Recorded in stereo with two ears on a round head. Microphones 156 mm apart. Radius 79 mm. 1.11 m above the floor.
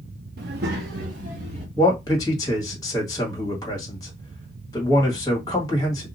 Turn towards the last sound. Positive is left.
turn(degrees=20)  # may be behind; listen again after turning